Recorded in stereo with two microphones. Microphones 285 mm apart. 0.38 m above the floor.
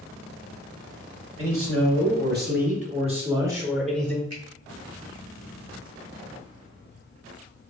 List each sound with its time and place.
1.4 s a man speaking: 50° right (ahead or behind), 1.9 m; by 4.2 s 5° left (ahead or behind), 1.3 m
4.3 s a finger snap: 55° right (ahead or behind), 1.8 m